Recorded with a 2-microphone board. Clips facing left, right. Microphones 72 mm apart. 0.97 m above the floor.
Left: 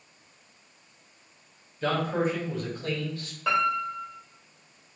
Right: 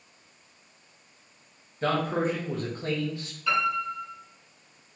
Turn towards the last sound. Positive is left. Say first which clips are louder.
# left 1 dB
turn(degrees=70)  # may be behind; listen again after turning